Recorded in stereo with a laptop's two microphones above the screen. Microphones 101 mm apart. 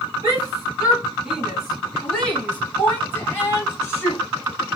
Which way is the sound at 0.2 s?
35° right (ahead or behind).